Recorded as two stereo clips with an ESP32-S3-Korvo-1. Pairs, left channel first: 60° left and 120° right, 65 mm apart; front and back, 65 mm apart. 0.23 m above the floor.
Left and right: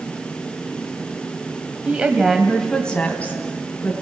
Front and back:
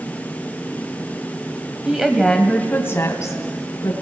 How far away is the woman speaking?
About 1.6 m.